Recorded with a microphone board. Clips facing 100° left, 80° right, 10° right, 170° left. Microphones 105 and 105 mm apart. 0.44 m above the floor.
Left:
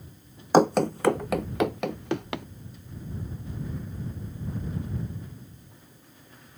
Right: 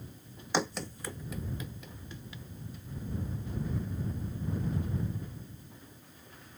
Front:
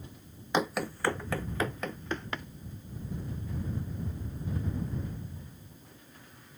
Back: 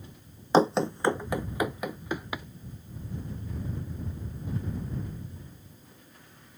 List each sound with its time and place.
0.5 s running footsteps: 125° left; by 2.5 s 90° left